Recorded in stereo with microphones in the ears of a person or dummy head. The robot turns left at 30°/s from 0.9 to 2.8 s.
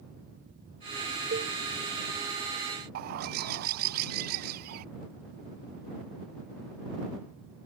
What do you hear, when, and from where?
1.3 s a cowbell: 50° right (ahead or behind); by 1.5 s 55° right (ahead or behind)
3.0 s a bird: 45° right (ahead or behind)